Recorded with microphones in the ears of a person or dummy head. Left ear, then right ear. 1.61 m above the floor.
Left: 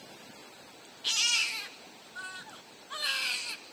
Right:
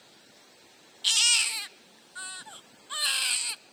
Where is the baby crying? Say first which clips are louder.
Right 4 dB; 35° right (ahead or behind), 0.5 m.